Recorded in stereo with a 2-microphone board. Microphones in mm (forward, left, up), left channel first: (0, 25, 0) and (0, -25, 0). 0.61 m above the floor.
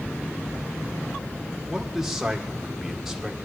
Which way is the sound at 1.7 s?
10° right (ahead or behind).